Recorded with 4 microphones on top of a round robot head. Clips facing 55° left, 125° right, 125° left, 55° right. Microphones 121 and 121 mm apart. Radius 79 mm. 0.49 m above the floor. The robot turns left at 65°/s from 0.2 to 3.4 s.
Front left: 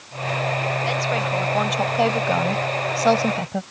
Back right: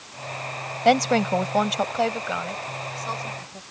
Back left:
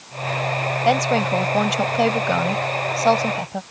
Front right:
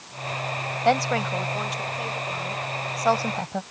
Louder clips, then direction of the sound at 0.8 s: Back right 5 dB, back left 3 dB; 155° right.